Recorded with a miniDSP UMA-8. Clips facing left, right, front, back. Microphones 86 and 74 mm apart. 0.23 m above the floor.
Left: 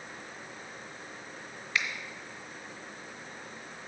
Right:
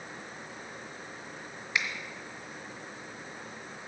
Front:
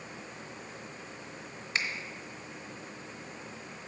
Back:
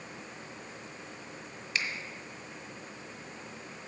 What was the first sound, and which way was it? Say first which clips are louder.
A finger snap: even, front 1 dB; 30° right.